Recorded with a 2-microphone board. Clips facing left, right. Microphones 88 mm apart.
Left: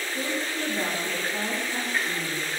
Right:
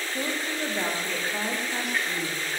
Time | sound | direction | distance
0.1 | a woman speaking | 25° right (ahead or behind) | 7.5 m